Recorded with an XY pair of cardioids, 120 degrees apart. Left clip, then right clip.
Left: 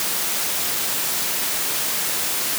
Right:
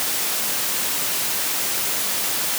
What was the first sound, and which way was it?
Only background noise.